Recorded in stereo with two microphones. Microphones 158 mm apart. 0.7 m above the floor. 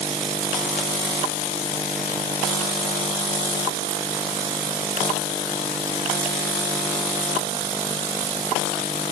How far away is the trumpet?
No trumpet in this recording.